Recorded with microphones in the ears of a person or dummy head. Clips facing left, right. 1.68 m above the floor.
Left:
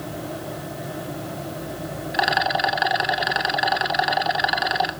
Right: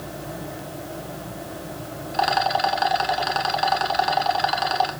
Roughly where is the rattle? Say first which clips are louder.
Right 1 dB; left.